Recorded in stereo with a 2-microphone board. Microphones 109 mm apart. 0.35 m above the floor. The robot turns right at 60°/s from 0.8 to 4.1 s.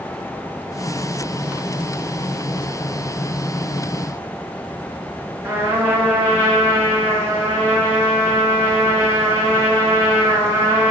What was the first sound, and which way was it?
A trumpet, 25° right (ahead or behind).